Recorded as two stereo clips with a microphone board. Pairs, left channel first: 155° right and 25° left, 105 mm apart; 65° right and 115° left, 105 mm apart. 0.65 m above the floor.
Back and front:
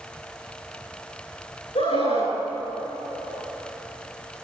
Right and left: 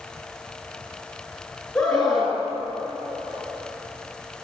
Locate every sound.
1.8 s a scream: 150° right, 9.5 m